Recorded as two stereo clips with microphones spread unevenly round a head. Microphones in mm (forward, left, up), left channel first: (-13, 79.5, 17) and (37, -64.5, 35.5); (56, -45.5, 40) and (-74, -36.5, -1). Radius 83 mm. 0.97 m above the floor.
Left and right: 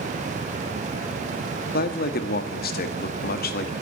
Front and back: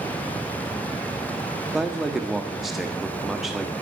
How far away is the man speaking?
About 1.4 m.